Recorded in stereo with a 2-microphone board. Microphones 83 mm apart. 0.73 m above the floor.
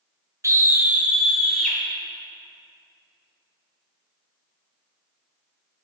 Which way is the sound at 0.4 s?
35° right (ahead or behind).